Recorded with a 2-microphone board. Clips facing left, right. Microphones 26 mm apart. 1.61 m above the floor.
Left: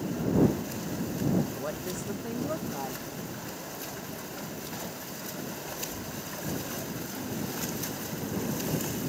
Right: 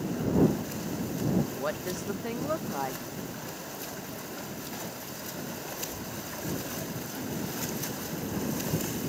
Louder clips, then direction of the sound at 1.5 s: Right 2 dB; 45° right (ahead or behind).